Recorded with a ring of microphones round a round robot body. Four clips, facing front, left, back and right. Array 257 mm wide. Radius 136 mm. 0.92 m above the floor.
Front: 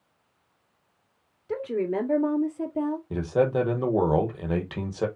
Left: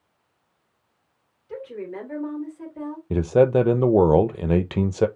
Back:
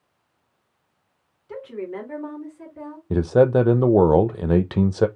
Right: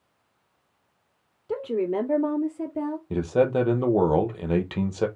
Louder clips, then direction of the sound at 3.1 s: Left 5 dB, back 9 dB; 145° left.